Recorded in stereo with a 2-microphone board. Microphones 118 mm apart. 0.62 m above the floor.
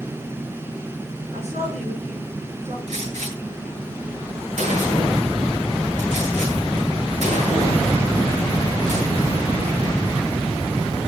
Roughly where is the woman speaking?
Right.